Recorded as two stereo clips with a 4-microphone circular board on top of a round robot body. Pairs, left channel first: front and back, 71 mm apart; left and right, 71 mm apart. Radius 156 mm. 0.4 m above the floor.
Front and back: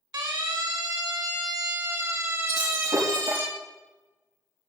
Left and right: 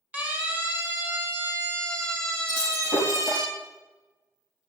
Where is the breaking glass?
155° right, 8.5 m.